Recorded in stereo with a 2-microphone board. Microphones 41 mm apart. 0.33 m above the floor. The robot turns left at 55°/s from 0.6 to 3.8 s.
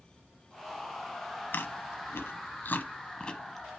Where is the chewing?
55° left (ahead or behind), 0.9 m; by 3.7 s centre (ahead or behind), 0.9 m.